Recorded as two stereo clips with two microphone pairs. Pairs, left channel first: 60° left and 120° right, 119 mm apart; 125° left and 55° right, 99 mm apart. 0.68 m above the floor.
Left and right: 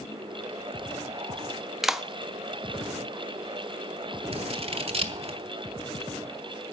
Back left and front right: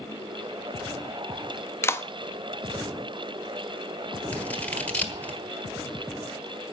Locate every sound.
1.8 s a clap: 150° left, 0.6 m
4.3 s scissors: 160° right, 1.4 m